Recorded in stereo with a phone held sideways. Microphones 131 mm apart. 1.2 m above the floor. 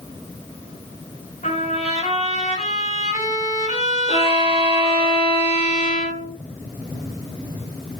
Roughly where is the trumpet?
Left.